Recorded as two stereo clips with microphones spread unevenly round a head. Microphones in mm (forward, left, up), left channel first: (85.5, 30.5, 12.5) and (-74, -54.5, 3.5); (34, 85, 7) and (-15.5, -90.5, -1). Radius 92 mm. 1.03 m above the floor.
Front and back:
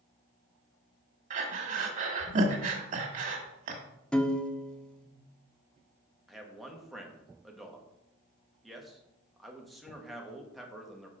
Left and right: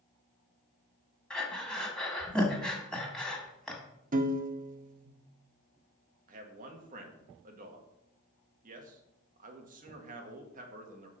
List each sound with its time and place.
1.3 s breathing: 160° left, 1.5 m
4.1 s a piano: 60° right, 0.8 m
6.3 s a man speaking: 65° right, 1.6 m